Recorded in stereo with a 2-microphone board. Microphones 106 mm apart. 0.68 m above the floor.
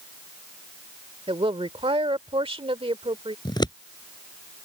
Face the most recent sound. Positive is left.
turn(degrees=45)  # may be behind; listen again after turning